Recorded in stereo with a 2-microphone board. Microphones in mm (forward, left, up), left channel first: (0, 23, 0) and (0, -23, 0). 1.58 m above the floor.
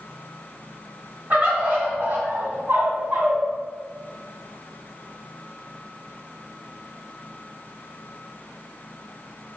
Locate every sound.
1.3 s a bird: 40° right (ahead or behind), 1.8 m